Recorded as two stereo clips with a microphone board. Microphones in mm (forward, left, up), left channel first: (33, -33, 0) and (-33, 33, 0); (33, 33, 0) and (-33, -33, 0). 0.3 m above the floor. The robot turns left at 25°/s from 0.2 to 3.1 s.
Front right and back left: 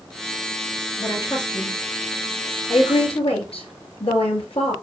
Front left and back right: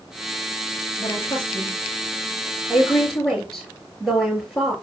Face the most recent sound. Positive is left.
turn(degrees=-40)